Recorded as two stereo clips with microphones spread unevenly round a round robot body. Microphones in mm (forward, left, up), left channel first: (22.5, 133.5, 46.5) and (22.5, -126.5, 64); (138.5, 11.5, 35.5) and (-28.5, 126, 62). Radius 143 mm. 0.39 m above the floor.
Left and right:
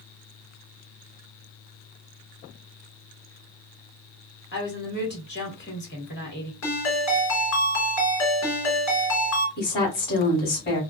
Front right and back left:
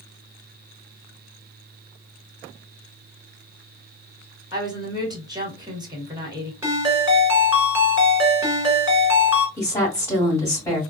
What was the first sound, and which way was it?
A woman speaking, 75° left.